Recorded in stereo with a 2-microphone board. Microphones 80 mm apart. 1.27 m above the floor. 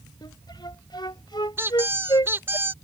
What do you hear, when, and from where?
0.2 s a flute: 70° left (ahead or behind)
1.6 s a squeak: 30° right (ahead or behind)